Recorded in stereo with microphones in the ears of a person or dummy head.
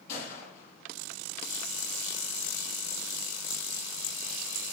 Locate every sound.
0.1 s a gunshot: 55° left (ahead or behind), 8 m